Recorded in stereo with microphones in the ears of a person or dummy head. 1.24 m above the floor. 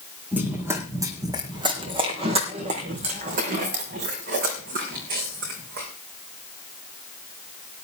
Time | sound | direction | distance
0.3 | running footsteps | 10° right (ahead or behind) | 3 m